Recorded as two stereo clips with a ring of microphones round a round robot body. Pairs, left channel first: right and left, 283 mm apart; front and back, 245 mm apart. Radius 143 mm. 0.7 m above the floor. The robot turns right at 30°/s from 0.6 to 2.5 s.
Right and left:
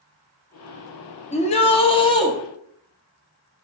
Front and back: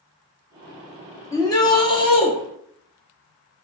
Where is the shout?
60° right, 0.6 m; by 2.3 s 30° right, 0.6 m.